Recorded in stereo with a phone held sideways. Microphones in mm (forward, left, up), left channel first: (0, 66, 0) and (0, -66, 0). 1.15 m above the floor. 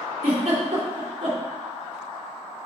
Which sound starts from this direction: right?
A giggle, at 0.2 s.